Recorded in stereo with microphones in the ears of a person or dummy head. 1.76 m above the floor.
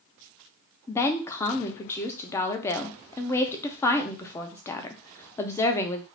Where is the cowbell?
I don't hear a cowbell.